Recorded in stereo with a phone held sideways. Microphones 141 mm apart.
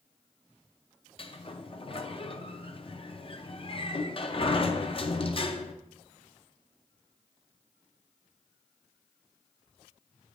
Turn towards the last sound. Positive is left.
turn(degrees=40)  # may be behind; listen again after turning